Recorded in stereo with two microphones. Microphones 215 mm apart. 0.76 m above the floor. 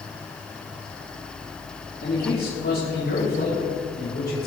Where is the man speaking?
60° left (ahead or behind), 5.5 m; by 4.5 s 75° left (ahead or behind), 6 m.